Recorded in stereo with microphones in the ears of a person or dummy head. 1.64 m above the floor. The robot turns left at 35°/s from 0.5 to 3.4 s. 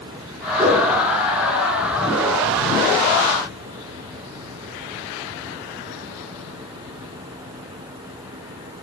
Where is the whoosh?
20° right (ahead or behind), 9 m; by 0.9 s 30° right (ahead or behind), 9 m.